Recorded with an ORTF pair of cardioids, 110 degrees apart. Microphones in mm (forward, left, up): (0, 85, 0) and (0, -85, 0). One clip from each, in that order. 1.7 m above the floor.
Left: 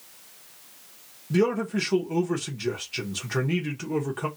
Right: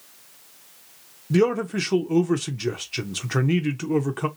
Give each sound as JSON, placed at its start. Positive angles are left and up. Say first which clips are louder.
{"t": 1.3, "sound": "a man speaking", "louder": "right 3 dB", "azimuth_deg": -25, "distance_m": 0.8}